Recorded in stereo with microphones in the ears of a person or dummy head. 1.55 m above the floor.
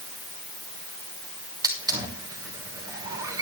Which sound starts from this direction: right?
A hiss, at 1.6 s.